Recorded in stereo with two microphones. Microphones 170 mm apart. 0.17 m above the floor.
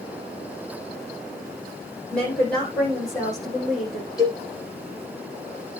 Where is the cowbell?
20° left (ahead or behind), 7 m.